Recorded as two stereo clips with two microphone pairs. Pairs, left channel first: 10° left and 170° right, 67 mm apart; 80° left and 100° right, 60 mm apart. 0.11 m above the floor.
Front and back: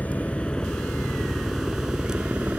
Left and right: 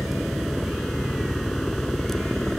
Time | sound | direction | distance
0.0 | a helicopter | 10° right | ?